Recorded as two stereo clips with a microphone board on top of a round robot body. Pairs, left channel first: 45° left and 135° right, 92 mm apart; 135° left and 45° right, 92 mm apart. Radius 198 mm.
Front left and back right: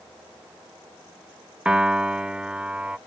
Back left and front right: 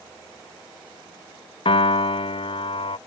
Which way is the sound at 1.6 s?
145° left.